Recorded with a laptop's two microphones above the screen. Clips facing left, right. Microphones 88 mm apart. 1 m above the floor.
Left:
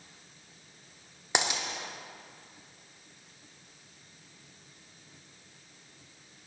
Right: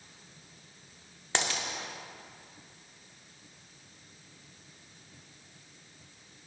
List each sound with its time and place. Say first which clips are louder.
1.4 s a dropped coin: left 2 dB; 15° left (ahead or behind), 0.6 m